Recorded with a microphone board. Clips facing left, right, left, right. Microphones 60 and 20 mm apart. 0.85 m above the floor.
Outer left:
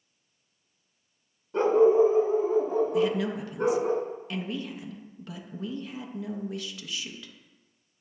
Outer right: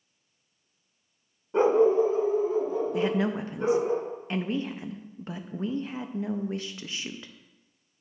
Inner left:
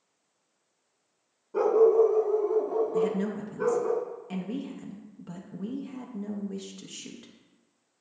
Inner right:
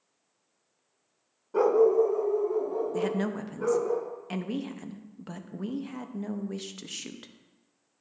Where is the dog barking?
20° right (ahead or behind), 0.6 m; by 3.9 s 50° left (ahead or behind), 2.5 m.